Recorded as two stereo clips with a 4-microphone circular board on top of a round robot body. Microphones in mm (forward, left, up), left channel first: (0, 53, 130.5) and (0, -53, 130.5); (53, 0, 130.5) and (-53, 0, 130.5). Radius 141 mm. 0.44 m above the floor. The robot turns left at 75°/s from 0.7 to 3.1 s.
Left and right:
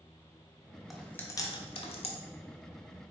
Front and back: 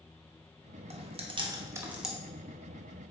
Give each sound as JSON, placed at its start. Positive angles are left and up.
{"t": 0.9, "sound": "chewing", "azimuth_deg": 180, "distance_m": 1.2}